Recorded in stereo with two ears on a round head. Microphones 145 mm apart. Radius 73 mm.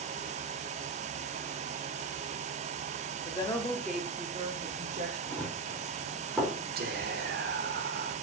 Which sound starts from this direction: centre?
Running footsteps, at 5.3 s.